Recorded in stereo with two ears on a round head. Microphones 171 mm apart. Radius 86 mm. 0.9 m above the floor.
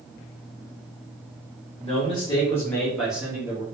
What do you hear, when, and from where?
1.8 s a man speaking: 35° left (ahead or behind), 1.2 m; by 3.6 s 20° right (ahead or behind), 1.1 m